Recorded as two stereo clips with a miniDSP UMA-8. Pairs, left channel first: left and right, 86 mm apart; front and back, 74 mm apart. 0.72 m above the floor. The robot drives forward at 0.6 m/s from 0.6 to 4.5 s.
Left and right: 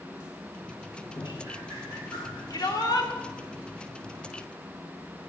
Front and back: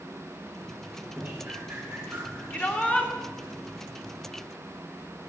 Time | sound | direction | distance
1.1 | dripping | 110° left | 6.5 m
2.5 | a shout | 60° left | 2.5 m